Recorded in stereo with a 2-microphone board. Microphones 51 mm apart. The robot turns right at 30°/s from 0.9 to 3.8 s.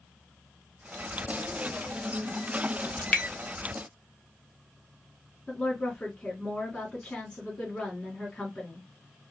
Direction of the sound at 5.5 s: 20° left (ahead or behind).